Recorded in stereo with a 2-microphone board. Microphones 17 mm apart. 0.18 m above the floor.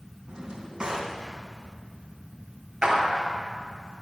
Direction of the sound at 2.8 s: 65° right (ahead or behind).